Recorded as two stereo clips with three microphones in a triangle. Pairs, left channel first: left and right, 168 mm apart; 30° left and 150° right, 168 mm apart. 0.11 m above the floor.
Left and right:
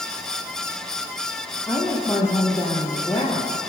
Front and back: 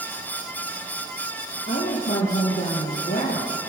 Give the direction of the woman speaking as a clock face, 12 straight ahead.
11 o'clock.